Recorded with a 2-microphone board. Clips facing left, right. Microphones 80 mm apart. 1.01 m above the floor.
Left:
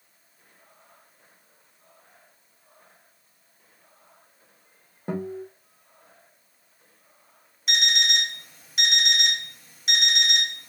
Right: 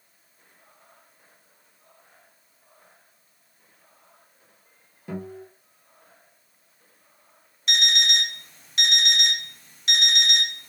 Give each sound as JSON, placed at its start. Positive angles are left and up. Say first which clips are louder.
{"t": 5.1, "sound": "a guitar", "louder": "left 4 dB", "side_deg": 45, "distance_m": 0.8}
{"t": 7.7, "sound": "an alarm clock", "louder": "even", "side_deg": 5, "distance_m": 0.6}